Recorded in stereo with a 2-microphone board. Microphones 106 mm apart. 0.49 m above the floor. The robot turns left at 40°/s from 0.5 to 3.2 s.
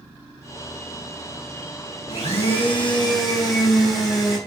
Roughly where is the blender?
Left.